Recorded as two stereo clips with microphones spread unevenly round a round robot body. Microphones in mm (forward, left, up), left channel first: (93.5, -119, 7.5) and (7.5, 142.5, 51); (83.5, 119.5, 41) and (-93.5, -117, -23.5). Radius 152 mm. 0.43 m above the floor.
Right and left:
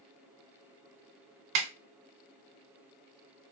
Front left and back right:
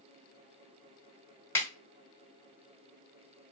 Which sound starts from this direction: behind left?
A snare drum, at 1.6 s.